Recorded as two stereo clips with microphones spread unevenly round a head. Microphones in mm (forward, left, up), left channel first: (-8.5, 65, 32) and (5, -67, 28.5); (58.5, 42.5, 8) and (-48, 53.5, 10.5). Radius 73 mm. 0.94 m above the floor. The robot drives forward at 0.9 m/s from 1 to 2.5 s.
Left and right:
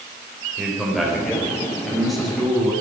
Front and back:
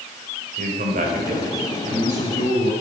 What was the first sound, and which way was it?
A man speaking, 175° right.